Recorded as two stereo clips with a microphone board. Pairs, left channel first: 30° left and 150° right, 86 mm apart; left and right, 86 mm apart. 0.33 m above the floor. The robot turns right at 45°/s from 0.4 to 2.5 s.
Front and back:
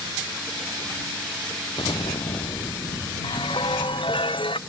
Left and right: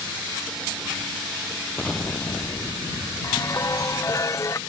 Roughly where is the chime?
Ahead left.